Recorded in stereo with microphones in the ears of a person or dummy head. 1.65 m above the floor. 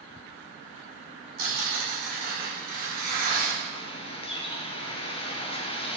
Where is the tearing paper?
50° right (ahead or behind), 3 m.